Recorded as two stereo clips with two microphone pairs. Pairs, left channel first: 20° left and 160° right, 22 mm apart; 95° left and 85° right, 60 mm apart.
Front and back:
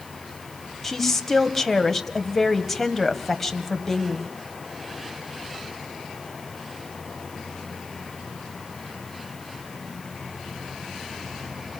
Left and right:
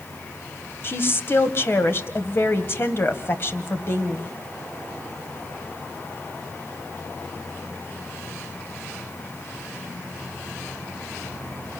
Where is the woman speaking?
100° left, 1.6 m.